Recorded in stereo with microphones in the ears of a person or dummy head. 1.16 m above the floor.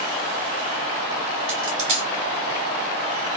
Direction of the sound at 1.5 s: 40° right (ahead or behind).